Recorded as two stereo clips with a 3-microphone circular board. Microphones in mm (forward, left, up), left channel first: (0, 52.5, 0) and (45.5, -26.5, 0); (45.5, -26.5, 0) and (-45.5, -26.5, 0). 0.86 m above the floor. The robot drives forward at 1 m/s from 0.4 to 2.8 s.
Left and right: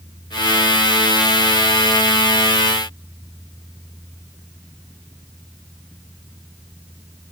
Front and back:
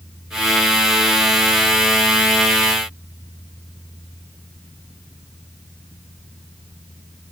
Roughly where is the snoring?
No snoring in this recording.